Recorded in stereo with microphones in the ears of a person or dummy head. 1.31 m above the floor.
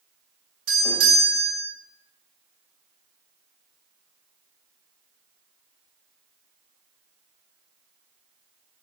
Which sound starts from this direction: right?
A doorbell, at 0.7 s.